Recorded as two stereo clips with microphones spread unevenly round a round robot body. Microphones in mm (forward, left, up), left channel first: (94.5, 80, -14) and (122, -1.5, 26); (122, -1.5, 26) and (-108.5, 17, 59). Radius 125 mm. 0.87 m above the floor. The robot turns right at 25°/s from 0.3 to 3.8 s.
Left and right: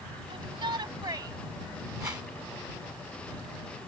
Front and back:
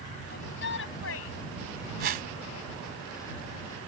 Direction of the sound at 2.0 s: 135° right.